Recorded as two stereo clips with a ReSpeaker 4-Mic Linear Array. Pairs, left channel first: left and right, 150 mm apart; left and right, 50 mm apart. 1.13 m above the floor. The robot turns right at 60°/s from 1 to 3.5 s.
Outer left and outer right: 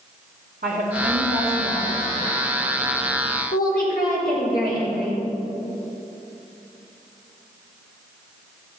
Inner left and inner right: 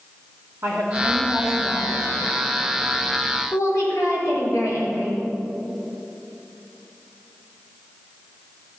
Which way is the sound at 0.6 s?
105° right.